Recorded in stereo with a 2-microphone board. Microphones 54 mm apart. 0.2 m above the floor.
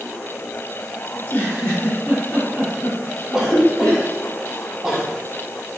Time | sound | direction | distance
1.1 | a giggle | 35° left (ahead or behind) | 1.9 m
3.3 | a cough | 10° right (ahead or behind) | 1.0 m